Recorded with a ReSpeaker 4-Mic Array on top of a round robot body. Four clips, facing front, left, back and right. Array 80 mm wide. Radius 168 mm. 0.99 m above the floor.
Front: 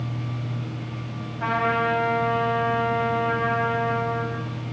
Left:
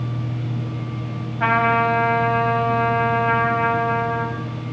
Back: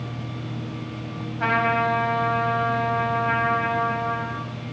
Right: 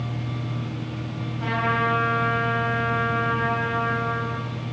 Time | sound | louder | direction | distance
1.4 | a trumpet | left 6 dB, back 1 dB | 105° left | 7 m